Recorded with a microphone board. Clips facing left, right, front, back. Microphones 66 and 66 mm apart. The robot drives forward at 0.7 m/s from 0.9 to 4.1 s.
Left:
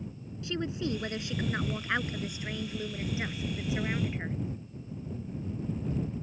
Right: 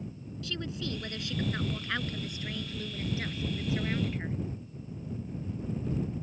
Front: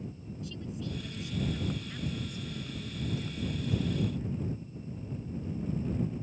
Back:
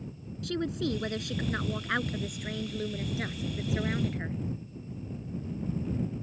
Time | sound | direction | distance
0.4 | a woman speaking | 160° left | ?